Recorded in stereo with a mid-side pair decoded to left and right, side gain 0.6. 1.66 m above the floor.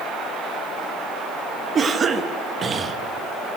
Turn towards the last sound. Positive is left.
turn(degrees=-30)